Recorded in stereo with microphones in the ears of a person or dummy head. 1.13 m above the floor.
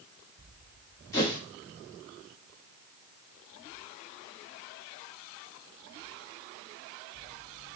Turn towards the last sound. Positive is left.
turn(degrees=20)  # may be behind; listen again after turning